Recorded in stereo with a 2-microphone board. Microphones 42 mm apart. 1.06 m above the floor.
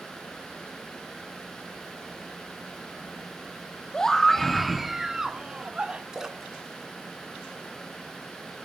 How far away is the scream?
About 1.4 m.